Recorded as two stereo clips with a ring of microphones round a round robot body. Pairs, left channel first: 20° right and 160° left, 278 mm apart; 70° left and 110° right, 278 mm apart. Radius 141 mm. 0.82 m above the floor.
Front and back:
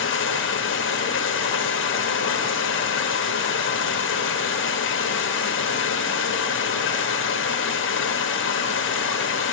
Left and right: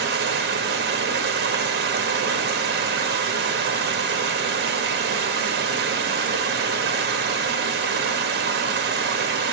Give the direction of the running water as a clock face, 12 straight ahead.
2 o'clock.